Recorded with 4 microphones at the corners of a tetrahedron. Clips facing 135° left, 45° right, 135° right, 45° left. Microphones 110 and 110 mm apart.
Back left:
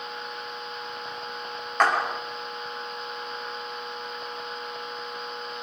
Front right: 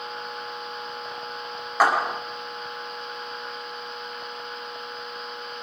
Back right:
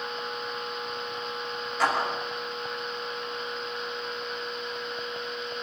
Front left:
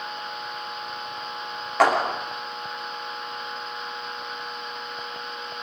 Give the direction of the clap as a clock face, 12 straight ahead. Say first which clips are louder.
Front right 2 dB, front left 7 dB; 11 o'clock.